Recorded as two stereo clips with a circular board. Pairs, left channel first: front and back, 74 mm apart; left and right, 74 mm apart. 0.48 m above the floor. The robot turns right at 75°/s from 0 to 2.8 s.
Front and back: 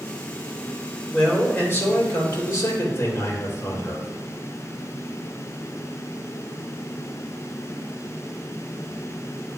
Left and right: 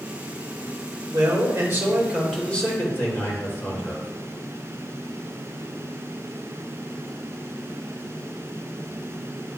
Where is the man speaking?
85° right, 2 m; by 4.1 s 40° left, 2 m.